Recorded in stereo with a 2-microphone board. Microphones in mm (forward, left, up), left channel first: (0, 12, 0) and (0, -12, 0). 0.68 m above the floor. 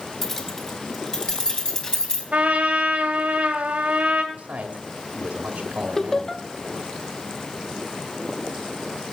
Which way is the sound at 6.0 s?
15° left (ahead or behind).